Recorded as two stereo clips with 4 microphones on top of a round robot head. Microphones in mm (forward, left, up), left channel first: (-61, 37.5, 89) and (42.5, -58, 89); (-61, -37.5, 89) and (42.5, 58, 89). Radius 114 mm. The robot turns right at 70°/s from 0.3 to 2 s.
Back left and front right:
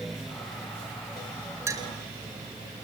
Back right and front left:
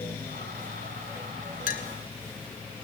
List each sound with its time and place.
1.7 s a clink: 115° right, 1.6 m; by 1.9 s 100° right, 1.6 m